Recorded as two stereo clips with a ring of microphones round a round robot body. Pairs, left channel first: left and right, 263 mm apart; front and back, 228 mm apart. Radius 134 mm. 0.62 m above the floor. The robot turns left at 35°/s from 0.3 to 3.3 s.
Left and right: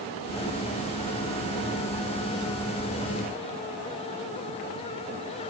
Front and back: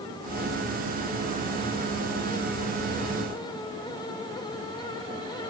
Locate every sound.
Only background noise.